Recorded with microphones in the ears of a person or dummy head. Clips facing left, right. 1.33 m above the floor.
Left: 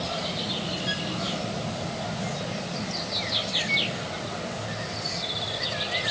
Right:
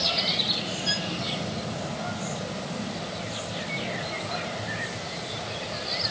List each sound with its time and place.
0.9 s a violin: 50° right (ahead or behind)